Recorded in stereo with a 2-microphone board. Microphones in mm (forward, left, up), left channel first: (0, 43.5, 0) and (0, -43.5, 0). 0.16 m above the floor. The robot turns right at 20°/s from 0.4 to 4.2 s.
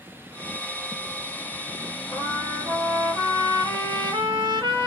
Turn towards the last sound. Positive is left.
turn(degrees=-110)